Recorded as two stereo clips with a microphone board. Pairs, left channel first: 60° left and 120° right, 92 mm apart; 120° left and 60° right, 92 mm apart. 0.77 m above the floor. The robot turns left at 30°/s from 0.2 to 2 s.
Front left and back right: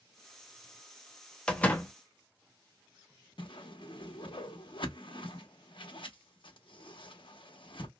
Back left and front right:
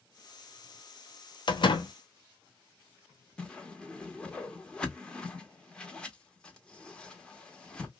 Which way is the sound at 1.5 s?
140° left.